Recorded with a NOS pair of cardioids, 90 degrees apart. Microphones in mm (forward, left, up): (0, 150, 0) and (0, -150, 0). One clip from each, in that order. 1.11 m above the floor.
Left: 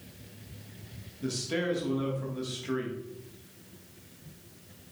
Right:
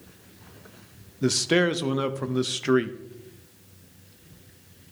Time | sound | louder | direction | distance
1.2 | a man speaking | right 10 dB | 65° right | 0.9 m